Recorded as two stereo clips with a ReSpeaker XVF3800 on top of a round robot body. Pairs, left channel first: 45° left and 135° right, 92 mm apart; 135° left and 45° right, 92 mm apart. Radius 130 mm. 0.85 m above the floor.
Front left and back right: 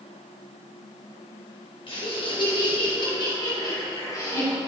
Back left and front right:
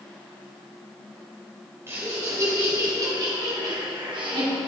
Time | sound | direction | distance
1.9 | laughter | 20° left | 4 m